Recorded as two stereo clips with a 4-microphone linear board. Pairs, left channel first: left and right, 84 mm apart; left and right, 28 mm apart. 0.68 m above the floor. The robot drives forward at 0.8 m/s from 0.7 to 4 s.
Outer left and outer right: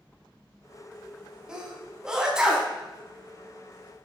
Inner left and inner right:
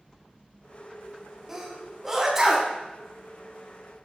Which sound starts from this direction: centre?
A sneeze, at 1.5 s.